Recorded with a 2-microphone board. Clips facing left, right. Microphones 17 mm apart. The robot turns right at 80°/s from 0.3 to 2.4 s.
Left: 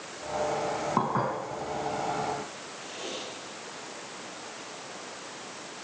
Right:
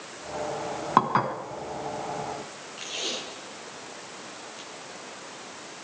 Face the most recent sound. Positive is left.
turn(degrees=-75)  # may be behind; listen again after turning